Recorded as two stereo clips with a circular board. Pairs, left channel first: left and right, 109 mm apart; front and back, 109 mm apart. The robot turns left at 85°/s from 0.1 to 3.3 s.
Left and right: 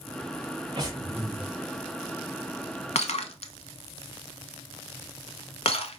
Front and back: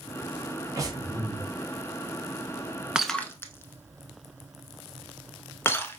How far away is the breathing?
About 1.0 m.